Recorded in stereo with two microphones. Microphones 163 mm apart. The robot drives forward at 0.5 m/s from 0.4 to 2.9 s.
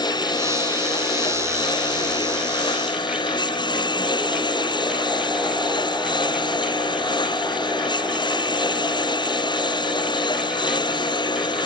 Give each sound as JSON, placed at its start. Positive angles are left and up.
{"t": 0.0, "sound": "a lawn mower", "side_deg": 25}